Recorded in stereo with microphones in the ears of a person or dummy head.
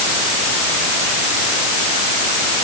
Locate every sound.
Only background noise.